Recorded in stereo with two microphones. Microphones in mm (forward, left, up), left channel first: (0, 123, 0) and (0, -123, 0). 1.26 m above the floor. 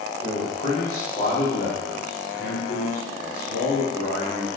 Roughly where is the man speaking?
Left.